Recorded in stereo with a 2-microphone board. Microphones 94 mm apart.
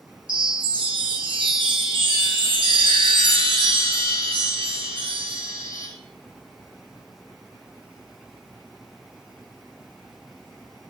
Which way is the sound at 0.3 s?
65° right (ahead or behind).